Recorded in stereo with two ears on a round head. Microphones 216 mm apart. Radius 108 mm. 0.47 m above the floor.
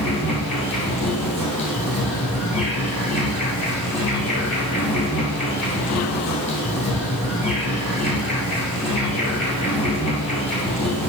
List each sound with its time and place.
0.0 s an insect: 25° left (ahead or behind), 3 m